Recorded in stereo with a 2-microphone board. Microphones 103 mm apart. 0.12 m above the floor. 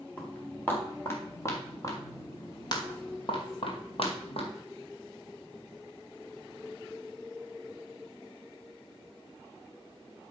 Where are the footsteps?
15° left (ahead or behind), 4.5 m; by 4.5 s 70° left (ahead or behind), 3.5 m.